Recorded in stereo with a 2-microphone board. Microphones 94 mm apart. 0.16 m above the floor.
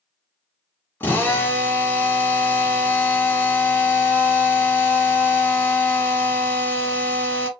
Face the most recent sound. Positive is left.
turn(degrees=20)  # may be behind; listen again after turning